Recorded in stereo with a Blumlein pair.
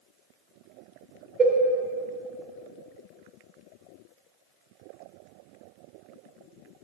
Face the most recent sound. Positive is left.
turn(degrees=-10)